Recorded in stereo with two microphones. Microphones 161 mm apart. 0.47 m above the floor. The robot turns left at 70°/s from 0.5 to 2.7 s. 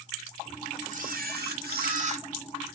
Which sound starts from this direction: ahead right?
A camera shutter, at 0.9 s.